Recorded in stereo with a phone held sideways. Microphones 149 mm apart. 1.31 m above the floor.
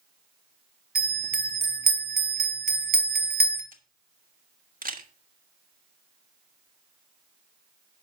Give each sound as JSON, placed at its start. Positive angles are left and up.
{"t": 0.9, "sound": "a bell", "side_deg": -70, "distance_m": 1.2}
{"t": 3.7, "sound": "a camera shutter", "side_deg": -65, "distance_m": 1.1}